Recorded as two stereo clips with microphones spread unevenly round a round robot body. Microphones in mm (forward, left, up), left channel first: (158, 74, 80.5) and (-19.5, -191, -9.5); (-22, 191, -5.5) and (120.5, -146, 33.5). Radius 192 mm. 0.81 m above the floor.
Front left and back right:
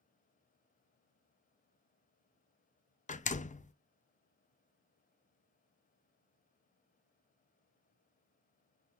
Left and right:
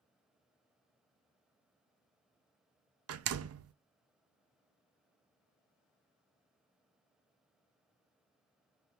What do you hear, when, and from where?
3.1 s a door slam: 20° right, 0.7 m